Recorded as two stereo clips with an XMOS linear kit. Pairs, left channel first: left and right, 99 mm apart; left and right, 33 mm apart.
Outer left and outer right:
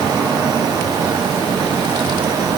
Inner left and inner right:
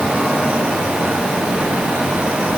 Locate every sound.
Only background noise.